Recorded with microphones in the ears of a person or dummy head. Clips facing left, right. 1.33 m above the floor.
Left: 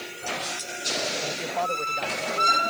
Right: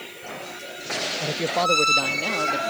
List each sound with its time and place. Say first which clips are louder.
1.2 s a man speaking: right 5 dB; 40° right (ahead or behind); by 2.7 s 65° right (ahead or behind)